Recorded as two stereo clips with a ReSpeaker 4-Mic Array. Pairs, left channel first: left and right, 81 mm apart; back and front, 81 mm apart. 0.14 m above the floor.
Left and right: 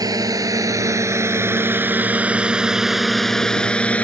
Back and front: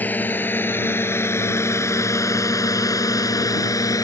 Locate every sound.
0.0 s a drone: 115° right; by 4.0 s 160° left